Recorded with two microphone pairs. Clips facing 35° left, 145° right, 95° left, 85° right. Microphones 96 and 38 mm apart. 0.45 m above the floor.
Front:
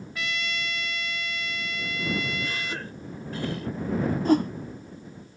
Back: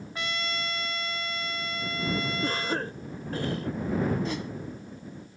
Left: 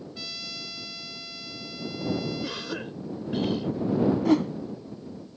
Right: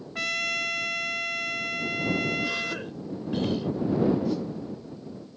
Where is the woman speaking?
I don't hear a woman speaking.